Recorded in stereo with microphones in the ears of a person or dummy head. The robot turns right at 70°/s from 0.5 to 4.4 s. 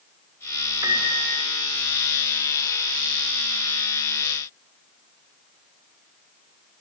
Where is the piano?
160° right, 4.5 m; by 1.3 s 130° right, 4.5 m.